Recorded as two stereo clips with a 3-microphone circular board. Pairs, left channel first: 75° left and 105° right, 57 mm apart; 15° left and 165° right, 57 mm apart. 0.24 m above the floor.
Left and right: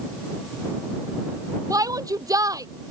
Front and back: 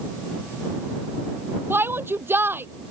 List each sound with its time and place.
1.7 s a shout: 115° right